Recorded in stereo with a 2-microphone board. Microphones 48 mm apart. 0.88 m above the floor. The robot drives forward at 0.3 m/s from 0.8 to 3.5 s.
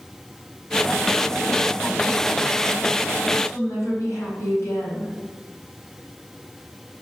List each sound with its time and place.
3.4 s a woman speaking: 65° left (ahead or behind), 5 m